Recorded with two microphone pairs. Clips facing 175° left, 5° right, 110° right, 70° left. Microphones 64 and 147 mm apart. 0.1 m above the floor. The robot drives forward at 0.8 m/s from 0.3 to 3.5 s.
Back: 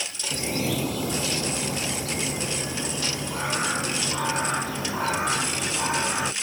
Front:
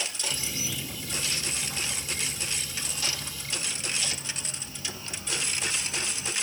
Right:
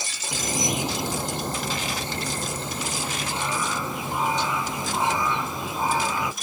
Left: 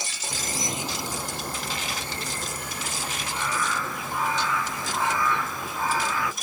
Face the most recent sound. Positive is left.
turn(degrees=180)